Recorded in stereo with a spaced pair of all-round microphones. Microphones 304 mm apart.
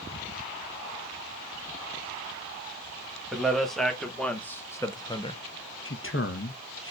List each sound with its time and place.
3.3 s a man speaking: centre (ahead or behind), 1.6 m; by 5.4 s 20° left (ahead or behind), 0.6 m
5.8 s a man speaking: 40° left (ahead or behind), 0.8 m